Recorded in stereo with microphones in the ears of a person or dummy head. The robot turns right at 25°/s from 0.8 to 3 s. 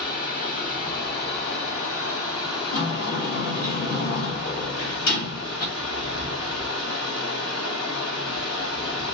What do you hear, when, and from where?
0.0 s running water: 50° left, 1.5 m; by 9.1 s 105° left, 1.5 m
2.7 s a sliding door: 75° left (ahead or behind), 1.4 m; by 5.7 s 70° left (ahead or behind), 1.4 m